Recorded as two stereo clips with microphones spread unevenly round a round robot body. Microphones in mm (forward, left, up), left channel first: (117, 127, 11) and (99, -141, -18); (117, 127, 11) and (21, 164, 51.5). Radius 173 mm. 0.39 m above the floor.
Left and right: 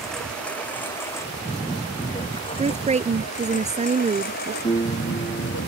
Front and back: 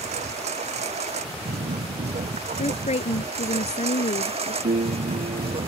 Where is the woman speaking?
30° right.